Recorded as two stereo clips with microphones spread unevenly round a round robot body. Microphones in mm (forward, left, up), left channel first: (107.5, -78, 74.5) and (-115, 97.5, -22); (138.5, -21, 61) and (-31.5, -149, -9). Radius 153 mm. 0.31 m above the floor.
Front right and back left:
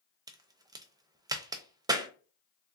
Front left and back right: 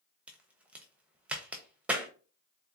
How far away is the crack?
About 0.5 m.